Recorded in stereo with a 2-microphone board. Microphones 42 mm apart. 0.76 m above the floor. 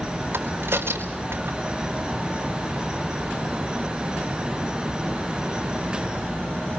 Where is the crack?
70° right (ahead or behind), 4 m.